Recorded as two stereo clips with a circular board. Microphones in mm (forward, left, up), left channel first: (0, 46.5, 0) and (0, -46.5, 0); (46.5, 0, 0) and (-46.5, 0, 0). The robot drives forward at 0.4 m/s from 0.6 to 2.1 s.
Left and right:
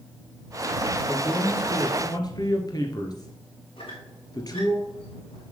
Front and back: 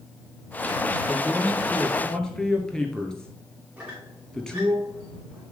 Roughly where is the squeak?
Left.